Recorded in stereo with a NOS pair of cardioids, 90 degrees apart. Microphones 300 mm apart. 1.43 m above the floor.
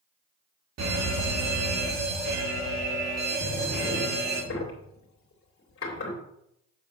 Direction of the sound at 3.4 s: 45° left.